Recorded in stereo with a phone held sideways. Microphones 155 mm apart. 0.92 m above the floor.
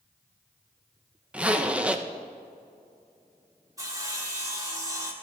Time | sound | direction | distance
1.3 | a zipper | 10° right (ahead or behind) | 0.6 m
3.8 | sawing | 20° right (ahead or behind) | 1.4 m